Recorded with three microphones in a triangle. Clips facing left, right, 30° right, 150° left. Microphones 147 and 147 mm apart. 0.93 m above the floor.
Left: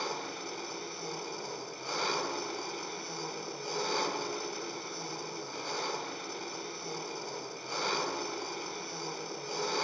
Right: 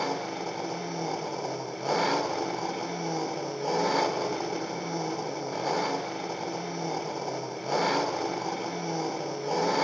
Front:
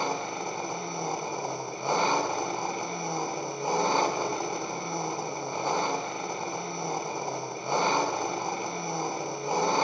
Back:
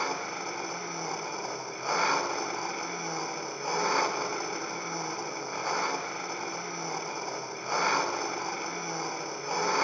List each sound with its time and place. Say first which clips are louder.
0.0 s an engine running: right 8 dB, front 3 dB; 95° right, 1.3 m